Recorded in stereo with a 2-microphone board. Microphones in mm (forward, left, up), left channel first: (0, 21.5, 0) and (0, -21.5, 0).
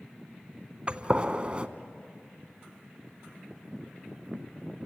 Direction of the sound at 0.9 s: 25° right (ahead or behind).